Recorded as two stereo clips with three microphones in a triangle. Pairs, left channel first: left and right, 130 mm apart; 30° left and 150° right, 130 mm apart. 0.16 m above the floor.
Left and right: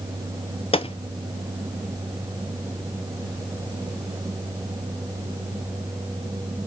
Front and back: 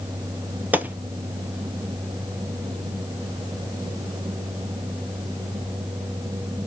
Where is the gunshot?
135° left, 0.8 m.